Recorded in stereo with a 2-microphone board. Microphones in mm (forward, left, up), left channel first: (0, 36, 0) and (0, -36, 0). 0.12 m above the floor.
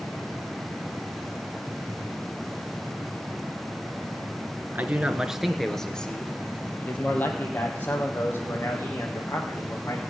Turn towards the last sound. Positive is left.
turn(degrees=30)  # may be behind; listen again after turning